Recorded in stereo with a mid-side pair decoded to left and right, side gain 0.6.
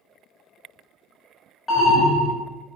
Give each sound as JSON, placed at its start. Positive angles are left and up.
{"t": 1.7, "sound": "an alarm", "azimuth_deg": 20, "distance_m": 1.1}